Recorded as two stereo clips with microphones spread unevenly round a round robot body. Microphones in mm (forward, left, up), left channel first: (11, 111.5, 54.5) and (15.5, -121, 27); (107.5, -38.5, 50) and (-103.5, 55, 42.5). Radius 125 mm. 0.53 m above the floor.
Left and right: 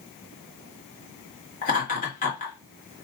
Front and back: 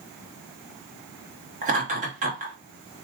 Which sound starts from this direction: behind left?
Laughter, at 1.6 s.